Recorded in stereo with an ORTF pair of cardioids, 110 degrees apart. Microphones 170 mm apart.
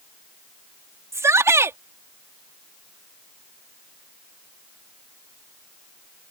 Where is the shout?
15° right.